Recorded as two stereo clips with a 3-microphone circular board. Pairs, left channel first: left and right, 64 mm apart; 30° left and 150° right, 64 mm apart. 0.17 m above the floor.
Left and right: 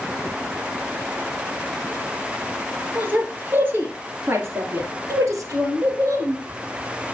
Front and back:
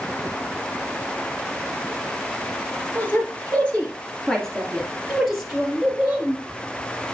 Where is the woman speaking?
25° right, 2.5 m; by 6.4 s 75° right, 3.5 m.